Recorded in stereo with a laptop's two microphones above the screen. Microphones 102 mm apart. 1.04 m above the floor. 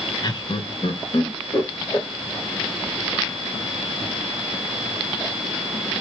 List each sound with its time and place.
0.2 s laughter: 40° left (ahead or behind), 0.8 m; by 2.1 s 45° left (ahead or behind), 1.6 m